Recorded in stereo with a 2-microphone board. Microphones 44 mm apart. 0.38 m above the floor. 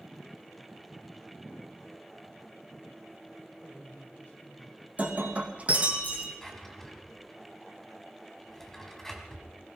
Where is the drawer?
5° left (ahead or behind), 1.8 m.